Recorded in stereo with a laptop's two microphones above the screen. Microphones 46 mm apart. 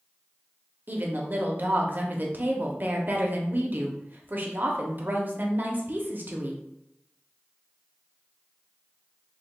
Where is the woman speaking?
45° right (ahead or behind), 0.6 m.